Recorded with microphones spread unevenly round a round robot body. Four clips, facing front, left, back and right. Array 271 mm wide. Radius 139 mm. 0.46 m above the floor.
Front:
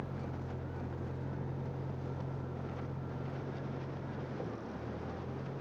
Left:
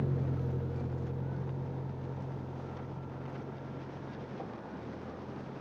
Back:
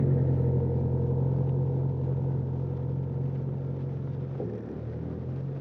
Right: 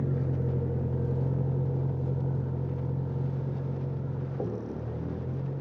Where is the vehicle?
170° right; by 5.6 s 125° right.